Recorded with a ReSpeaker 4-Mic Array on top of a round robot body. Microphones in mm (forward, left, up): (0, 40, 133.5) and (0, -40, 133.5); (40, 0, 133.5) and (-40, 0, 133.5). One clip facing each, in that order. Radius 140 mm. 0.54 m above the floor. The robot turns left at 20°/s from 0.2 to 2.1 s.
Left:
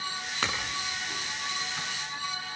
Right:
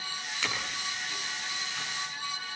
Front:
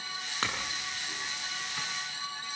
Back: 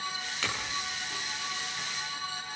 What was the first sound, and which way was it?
A clink, 50° left.